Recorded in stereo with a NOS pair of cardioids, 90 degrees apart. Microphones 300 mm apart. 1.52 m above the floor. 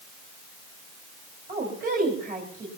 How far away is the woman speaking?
About 4.5 m.